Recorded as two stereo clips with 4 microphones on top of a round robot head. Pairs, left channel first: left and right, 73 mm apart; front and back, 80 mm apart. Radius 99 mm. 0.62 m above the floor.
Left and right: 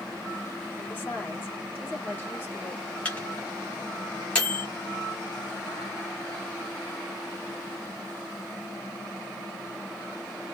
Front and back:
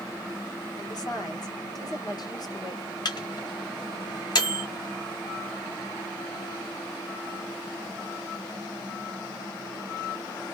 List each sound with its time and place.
0.8 s a woman speaking: 25° left, 2 m
3.0 s a microwave: 20° left, 2 m